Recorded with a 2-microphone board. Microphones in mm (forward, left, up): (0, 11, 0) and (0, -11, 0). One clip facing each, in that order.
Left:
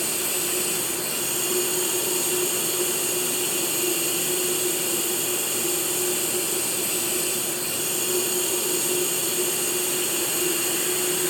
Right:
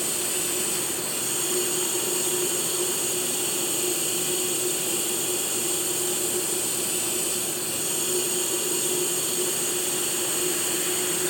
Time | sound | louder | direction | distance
0.0 | running water | left 1 dB | 70° left (ahead or behind) | 6 m